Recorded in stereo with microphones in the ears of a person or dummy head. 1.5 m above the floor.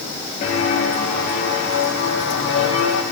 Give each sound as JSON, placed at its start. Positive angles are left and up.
{"t": 0.4, "sound": "footsteps", "side_deg": 35, "distance_m": 1.9}